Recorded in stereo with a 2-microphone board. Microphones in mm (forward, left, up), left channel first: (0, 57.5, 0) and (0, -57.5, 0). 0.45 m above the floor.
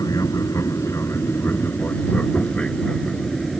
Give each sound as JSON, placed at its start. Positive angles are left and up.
{"t": 0.0, "sound": "an aircraft", "side_deg": 30}